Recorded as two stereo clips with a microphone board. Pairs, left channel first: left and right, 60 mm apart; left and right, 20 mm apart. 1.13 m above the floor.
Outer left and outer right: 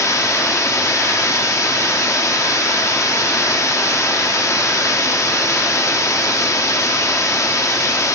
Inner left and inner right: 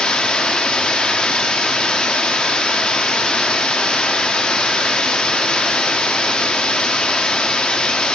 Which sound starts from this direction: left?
Running water, at 0.0 s.